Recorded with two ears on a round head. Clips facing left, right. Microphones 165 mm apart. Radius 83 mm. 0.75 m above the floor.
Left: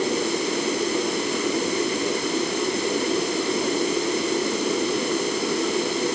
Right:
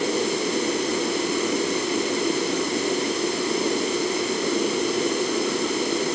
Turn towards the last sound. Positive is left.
No sound to turn to.